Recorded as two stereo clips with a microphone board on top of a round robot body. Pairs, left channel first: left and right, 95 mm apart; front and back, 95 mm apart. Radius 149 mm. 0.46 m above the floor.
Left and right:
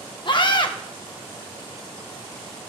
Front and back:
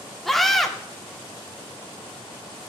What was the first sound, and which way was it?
A scream, 85° left.